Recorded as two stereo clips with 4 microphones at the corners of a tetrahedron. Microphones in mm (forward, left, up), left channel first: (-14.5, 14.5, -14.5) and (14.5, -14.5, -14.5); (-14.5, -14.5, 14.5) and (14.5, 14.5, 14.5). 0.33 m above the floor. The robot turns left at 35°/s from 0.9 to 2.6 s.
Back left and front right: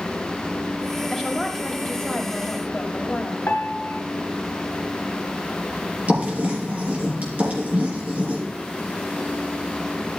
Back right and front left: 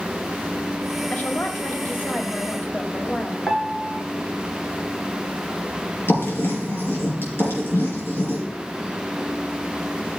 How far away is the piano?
About 1.6 m.